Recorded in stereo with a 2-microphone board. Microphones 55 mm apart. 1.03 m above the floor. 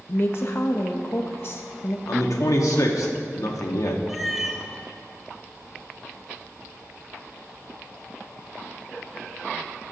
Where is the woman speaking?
45° left (ahead or behind), 0.7 m.